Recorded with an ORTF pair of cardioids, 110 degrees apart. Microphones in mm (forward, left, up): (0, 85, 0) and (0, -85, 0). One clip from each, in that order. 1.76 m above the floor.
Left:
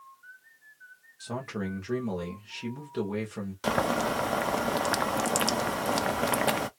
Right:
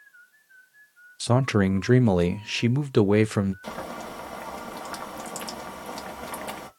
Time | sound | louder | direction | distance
1.2 | a man speaking | right 12 dB | 65° right | 0.5 m
3.6 | boiling | left 8 dB | 50° left | 0.6 m